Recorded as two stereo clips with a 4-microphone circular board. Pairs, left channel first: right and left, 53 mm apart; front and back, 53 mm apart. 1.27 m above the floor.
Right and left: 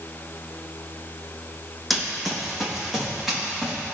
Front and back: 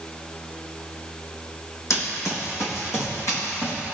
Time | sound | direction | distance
1.9 | running footsteps | straight ahead | 2.5 m